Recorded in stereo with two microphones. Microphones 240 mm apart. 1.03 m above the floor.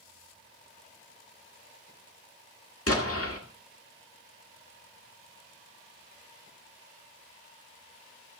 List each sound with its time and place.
2.9 s an explosion: 70° left (ahead or behind), 1.9 m